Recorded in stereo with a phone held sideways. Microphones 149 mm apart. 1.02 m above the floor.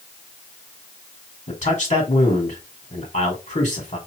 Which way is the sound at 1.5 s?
45° left (ahead or behind).